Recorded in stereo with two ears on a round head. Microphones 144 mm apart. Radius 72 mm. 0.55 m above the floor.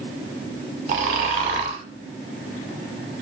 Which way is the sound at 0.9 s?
45° right (ahead or behind).